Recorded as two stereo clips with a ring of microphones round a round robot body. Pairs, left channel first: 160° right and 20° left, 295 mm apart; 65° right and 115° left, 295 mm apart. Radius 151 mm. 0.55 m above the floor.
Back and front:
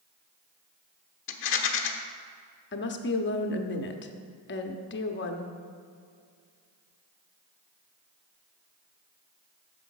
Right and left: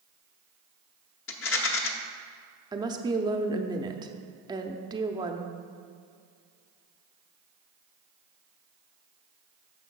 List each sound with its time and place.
1.3 s a rattle: 110° right, 1.0 m
2.7 s a woman speaking: straight behind, 0.8 m